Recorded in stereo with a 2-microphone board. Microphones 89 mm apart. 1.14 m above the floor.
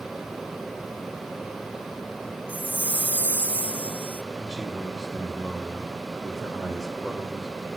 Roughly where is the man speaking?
Centre.